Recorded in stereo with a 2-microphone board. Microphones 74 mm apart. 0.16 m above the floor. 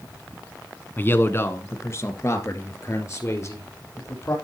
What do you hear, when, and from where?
1.0 s a man speaking: 25° left (ahead or behind), 1.2 m; by 4.3 s 40° left (ahead or behind), 4 m